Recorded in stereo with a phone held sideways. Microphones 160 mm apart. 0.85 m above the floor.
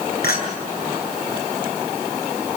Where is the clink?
75° left (ahead or behind), 8.5 m.